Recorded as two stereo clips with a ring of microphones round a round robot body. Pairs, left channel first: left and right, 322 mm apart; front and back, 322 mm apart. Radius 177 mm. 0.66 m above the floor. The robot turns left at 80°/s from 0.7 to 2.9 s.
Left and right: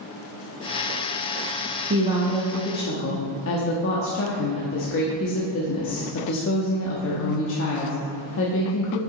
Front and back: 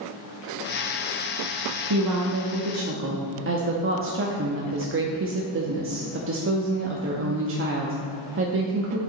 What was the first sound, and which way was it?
A woman speaking, 145° right.